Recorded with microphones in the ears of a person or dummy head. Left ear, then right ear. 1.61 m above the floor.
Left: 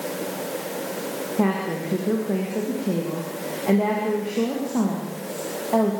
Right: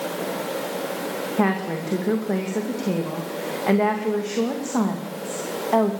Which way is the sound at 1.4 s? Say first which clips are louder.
Right 1 dB; 55° right (ahead or behind).